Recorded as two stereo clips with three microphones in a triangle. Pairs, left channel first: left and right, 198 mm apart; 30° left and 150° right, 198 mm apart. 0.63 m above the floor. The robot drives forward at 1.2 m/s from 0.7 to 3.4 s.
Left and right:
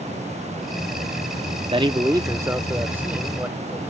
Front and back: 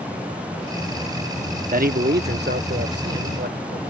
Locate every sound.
1.7 s a man speaking: 140° right; by 3.9 s 170° right